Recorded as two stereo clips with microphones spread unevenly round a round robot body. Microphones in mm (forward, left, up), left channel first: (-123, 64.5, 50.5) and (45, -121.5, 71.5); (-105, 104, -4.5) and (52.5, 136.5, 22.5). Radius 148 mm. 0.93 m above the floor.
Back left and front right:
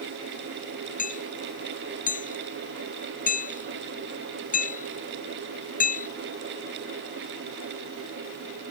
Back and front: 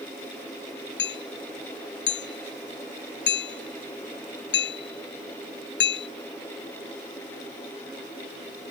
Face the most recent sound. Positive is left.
turn(degrees=-170)